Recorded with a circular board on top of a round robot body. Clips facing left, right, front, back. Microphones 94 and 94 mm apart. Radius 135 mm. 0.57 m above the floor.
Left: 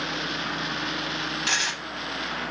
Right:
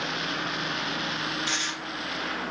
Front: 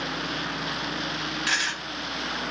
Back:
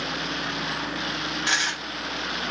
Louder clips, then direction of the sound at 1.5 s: Left 3 dB, back 2 dB; 110° left.